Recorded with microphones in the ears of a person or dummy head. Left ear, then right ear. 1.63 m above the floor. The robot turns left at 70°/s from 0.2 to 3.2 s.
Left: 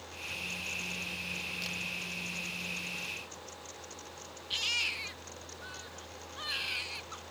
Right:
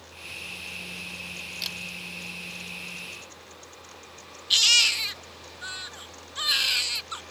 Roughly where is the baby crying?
Right.